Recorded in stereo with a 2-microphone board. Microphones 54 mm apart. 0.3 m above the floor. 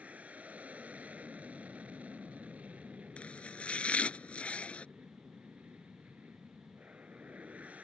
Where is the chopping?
25° left (ahead or behind).